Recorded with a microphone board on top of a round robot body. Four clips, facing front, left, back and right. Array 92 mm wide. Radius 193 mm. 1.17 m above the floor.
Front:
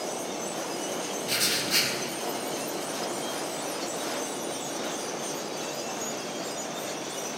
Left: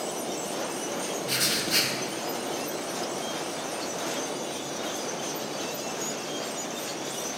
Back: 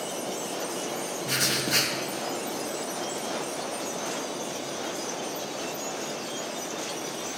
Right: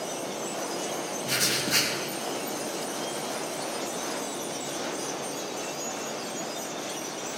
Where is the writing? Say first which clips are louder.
Right 1 dB, back 2 dB; 140° right, 0.5 m.